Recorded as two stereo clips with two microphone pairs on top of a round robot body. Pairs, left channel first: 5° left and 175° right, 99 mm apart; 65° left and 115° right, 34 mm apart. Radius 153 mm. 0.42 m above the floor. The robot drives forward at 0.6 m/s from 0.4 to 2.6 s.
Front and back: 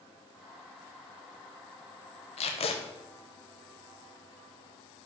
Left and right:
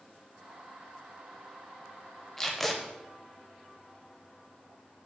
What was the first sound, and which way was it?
Tape being pulled, 15° right.